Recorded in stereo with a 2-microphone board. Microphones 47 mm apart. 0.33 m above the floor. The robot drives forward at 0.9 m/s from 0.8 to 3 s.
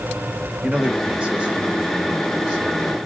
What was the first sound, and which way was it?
A man speaking, 20° right (ahead or behind).